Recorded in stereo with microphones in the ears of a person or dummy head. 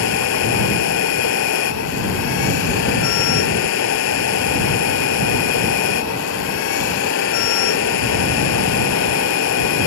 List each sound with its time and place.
0.0 s a machine running: 65° left (ahead or behind)